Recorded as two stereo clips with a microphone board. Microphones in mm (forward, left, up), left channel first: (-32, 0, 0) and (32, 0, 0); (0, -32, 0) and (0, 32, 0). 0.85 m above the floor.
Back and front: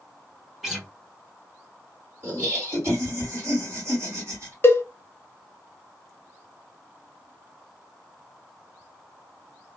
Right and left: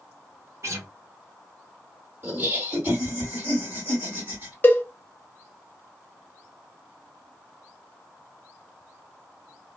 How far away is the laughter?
About 2.0 m.